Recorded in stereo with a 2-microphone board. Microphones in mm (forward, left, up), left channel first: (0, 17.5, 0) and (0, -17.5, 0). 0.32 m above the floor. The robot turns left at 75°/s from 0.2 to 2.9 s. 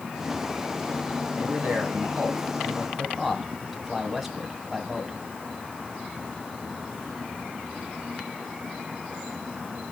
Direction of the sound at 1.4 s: 55° right.